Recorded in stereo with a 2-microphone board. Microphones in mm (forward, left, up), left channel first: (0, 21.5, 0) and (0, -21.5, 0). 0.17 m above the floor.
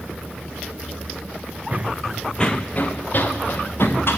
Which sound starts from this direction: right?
Running footsteps, at 1.7 s.